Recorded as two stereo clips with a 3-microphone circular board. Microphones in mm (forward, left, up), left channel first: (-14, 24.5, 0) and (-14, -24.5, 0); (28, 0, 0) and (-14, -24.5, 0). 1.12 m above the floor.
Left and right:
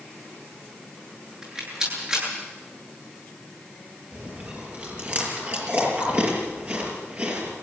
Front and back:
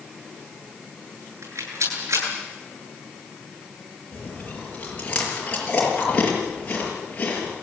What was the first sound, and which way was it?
A rattle, 160° right.